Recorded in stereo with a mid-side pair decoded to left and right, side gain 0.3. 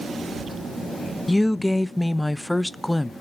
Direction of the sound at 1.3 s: 25° left.